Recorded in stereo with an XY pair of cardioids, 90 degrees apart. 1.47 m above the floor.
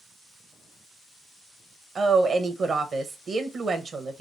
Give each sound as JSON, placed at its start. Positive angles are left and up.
{"t": 1.9, "sound": "a woman speaking", "azimuth_deg": -55, "distance_m": 1.2}